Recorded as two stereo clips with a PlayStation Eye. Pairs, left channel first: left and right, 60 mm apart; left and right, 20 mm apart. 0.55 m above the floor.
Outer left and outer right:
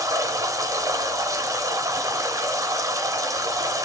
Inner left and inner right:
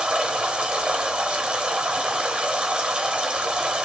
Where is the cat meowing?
I don't hear a cat meowing.